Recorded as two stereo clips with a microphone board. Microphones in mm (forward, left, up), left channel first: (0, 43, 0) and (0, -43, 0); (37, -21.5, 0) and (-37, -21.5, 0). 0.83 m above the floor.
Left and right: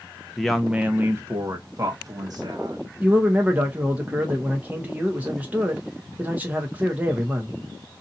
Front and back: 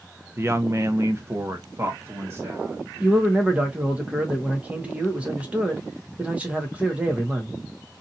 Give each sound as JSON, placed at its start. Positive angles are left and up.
{"t": 0.4, "sound": "a woman speaking", "azimuth_deg": 170, "distance_m": 0.6}
{"t": 3.0, "sound": "a man speaking", "azimuth_deg": -135, "distance_m": 0.9}